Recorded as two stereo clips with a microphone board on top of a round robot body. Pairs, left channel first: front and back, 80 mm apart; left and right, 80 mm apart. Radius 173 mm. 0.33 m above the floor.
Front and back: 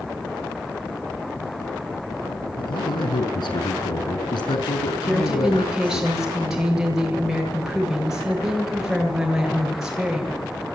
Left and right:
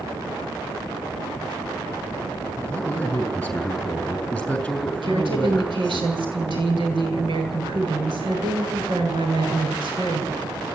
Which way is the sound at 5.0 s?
95° right.